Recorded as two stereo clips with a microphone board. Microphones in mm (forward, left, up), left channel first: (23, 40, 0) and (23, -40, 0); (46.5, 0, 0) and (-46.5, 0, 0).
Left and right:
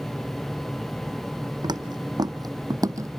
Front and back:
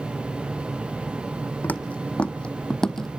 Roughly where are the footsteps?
Right.